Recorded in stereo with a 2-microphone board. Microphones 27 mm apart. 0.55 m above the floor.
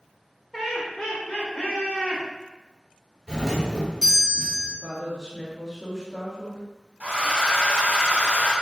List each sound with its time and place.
0.5 s laughter: 10° left (ahead or behind), 2.0 m; by 2.2 s 55° left (ahead or behind), 2.5 m
3.3 s a doorbell: 15° left (ahead or behind), 1.4 m
4.8 s a woman speaking: 5° left (ahead or behind), 1.2 m
7.0 s a hair dryer: 75° right (ahead or behind), 1.6 m